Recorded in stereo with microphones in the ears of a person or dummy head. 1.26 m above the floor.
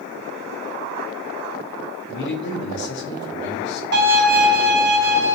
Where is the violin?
65° right (ahead or behind), 1.2 m.